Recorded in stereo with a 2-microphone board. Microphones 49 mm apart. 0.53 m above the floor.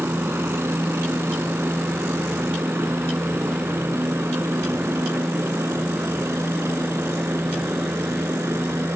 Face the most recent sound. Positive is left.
turn(degrees=-65)  # may be behind; listen again after turning